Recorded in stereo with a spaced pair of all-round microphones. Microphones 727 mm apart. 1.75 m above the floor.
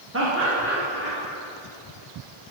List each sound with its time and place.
0.1 s laughter: 20° right (ahead or behind), 1.7 m; by 1.2 s 15° right (ahead or behind), 2.5 m